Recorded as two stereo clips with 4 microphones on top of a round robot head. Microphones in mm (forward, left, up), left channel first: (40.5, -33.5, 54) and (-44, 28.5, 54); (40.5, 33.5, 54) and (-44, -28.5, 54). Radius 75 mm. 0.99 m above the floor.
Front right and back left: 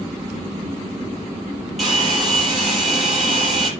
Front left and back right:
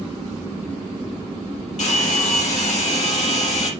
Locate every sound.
1.8 s a hair dryer: 55° left, 6 m